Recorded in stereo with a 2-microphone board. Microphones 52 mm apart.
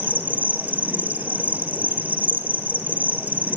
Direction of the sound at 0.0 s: 30° right (ahead or behind).